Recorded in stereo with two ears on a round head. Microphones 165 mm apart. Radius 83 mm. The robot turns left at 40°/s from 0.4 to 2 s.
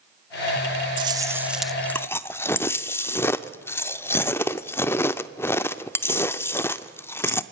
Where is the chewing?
150° right, 0.6 m; by 7.4 s 165° left, 0.6 m.